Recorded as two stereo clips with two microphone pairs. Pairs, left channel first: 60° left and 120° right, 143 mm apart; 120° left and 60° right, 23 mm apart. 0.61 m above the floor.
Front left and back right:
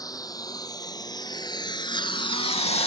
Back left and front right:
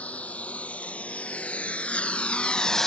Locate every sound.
0.0 s a lawn mower: 125° left; by 2.9 s 50° left